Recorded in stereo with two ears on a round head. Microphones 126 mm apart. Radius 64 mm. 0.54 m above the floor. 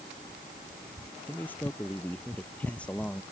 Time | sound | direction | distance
1.3 | a man speaking | 15° left (ahead or behind) | ?